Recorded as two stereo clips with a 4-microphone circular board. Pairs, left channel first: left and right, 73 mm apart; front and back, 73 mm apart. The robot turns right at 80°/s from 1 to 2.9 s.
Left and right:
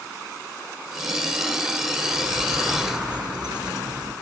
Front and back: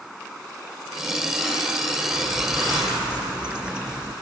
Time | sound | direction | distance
2.1 | a bird | 165° right | 5 m